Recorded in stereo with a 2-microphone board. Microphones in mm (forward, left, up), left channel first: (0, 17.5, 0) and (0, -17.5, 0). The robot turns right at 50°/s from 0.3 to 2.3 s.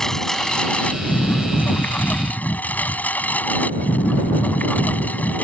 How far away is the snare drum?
I don't hear a snare drum.